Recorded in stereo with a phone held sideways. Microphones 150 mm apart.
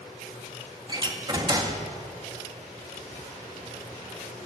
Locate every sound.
0.9 s a door slam: 30° right (ahead or behind), 1.9 m